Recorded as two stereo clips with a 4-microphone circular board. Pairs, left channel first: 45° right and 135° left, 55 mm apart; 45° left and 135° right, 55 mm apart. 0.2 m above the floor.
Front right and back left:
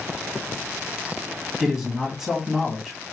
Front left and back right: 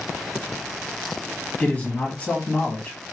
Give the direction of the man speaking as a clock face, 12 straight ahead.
10 o'clock.